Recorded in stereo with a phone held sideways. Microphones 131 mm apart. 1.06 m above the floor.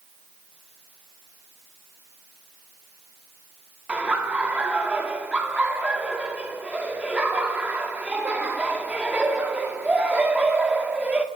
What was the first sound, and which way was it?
Laughter, 10° right (ahead or behind).